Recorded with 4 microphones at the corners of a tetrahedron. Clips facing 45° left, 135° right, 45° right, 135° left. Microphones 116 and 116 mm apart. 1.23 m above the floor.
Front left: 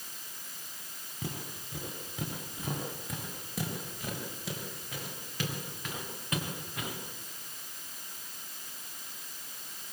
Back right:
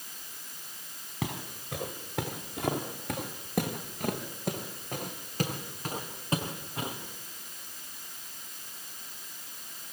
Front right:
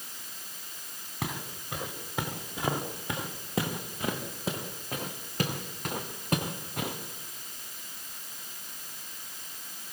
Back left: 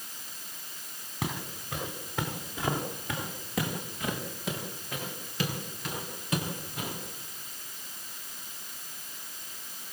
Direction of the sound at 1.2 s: 130° right.